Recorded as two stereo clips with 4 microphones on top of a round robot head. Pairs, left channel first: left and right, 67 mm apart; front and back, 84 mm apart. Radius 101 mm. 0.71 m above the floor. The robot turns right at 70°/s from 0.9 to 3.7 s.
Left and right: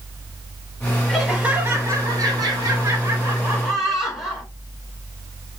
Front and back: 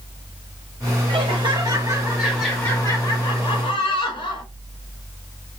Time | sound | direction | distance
1.1 | laughter | 175° left | 2.5 m